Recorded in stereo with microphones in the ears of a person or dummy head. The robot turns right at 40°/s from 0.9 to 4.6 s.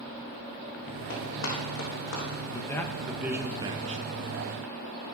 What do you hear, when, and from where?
1.1 s running footsteps: 60° left (ahead or behind), 3.5 m; by 2.2 s 65° left (ahead or behind), 4.5 m
2.5 s a man speaking: 155° left, 1.0 m; by 4.0 s 145° right, 1.0 m